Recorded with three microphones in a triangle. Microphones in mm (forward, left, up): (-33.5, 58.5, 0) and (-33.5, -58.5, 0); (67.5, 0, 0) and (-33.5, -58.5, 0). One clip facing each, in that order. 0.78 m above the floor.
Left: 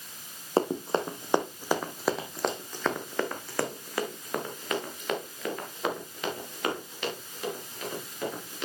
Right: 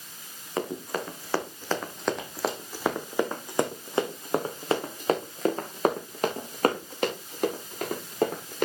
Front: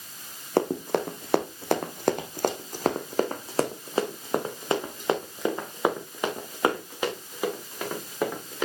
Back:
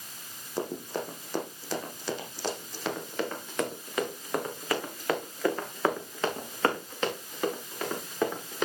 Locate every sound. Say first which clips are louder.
0.6 s running footsteps: left 5 dB, front 8 dB; 35° left, 1.9 m; by 8.7 s 55° right, 5 m